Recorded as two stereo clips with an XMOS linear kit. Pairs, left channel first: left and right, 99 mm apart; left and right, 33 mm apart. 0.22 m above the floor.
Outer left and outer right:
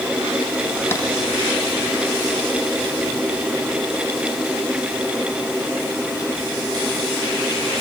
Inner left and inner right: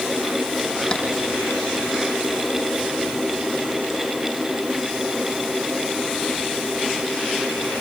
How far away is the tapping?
About 7.5 m.